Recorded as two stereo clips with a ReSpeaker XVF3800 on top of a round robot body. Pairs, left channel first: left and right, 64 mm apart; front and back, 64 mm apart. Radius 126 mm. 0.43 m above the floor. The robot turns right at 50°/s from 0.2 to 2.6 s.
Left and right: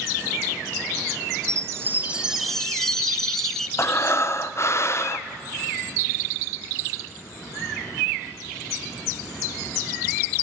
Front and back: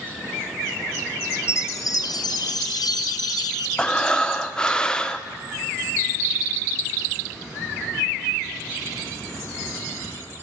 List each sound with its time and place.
1.5 s a chime: 50° right, 0.5 m; by 3.7 s 5° left, 0.5 m
3.8 s breathing: 70° left, 0.9 m